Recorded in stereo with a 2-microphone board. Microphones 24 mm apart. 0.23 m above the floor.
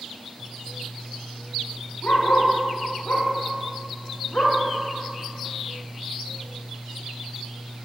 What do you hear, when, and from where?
2.0 s a dog barking: 80° left, 7.5 m; by 4.6 s 65° left (ahead or behind), 5.5 m